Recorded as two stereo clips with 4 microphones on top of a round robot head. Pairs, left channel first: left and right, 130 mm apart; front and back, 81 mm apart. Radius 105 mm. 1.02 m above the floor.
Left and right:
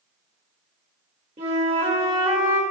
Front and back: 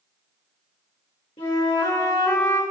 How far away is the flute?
About 2 m.